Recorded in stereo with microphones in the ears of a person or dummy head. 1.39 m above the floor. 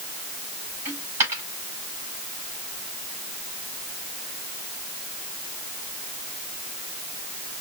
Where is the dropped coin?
15° right (ahead or behind), 4 m.